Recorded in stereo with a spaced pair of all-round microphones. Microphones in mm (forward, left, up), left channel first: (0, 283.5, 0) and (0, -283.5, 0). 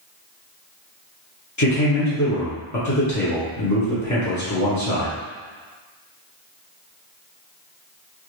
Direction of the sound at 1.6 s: 30° left (ahead or behind).